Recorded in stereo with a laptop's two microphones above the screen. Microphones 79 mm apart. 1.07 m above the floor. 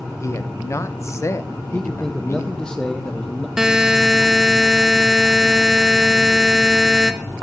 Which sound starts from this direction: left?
A man speaking, at 0.2 s.